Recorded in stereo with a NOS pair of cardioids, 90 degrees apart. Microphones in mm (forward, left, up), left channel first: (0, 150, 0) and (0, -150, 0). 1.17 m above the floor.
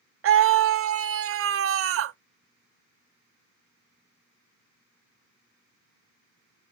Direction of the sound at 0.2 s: 45° right.